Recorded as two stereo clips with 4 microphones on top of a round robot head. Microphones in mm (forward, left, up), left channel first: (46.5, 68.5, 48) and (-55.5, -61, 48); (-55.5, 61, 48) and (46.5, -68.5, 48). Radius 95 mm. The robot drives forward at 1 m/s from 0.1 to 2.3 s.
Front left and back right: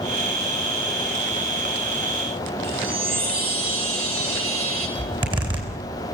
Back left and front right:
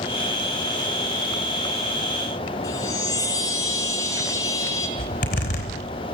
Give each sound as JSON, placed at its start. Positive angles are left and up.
{"t": 2.6, "sound": "a chime", "azimuth_deg": -160, "distance_m": 3.0}
{"t": 5.0, "sound": "a zipper", "azimuth_deg": 170, "distance_m": 4.0}